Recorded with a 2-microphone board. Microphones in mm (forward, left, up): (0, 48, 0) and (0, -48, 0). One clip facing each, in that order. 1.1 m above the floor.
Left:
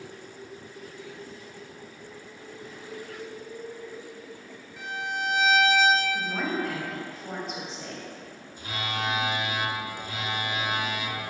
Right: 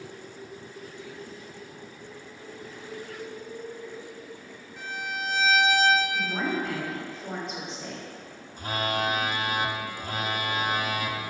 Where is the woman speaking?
Centre (ahead or behind), 1.9 m.